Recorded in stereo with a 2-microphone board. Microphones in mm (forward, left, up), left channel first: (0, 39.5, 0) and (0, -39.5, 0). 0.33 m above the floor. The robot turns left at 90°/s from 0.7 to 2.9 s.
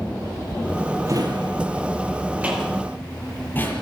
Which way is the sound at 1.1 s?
35° right (ahead or behind).